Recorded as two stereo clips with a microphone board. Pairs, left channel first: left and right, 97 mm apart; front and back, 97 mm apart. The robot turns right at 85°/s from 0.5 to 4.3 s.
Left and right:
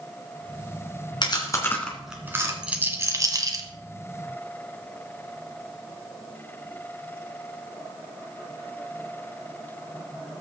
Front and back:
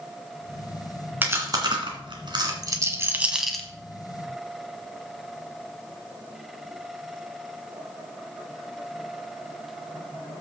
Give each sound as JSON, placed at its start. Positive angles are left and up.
{"t": 1.2, "sound": "chewing", "azimuth_deg": 110, "distance_m": 2.5}
{"t": 2.6, "sound": "a rattle", "azimuth_deg": -165, "distance_m": 1.5}